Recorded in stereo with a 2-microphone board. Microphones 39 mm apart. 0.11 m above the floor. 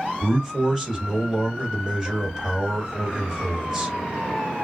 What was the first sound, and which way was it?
A man speaking, 5° right (ahead or behind).